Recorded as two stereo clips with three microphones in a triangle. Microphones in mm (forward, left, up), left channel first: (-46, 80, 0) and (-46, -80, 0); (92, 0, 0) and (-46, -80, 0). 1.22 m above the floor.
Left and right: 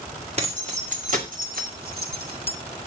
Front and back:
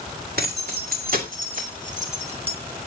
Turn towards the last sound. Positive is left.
turn(degrees=-95)